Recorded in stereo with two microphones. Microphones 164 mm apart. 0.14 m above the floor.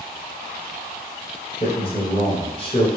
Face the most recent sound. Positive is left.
turn(degrees=35)  # may be behind; listen again after turning